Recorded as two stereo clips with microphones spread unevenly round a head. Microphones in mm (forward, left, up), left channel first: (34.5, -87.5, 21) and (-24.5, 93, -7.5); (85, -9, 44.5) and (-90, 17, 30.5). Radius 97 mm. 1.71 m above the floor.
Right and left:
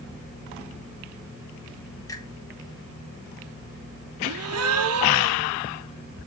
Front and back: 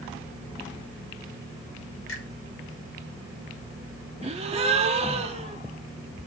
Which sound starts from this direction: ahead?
A finger snap, at 2.1 s.